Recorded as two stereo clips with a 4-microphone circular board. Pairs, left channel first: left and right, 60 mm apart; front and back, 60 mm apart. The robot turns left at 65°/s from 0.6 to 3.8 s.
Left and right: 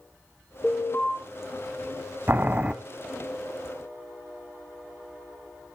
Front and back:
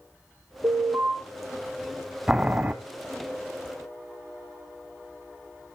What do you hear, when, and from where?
0.6 s an alarm: 165° left, 6 m; by 1.1 s 130° left, 6 m
2.3 s boiling: 115° right, 1.0 m; by 2.7 s 145° right, 1.0 m